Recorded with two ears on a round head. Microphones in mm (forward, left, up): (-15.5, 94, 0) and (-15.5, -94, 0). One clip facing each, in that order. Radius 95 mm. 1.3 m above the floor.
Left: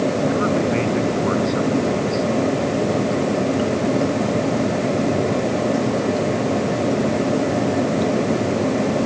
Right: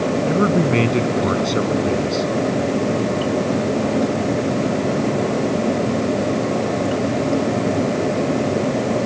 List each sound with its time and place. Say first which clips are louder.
0.3 s a man speaking: right 2 dB; 40° right (ahead or behind)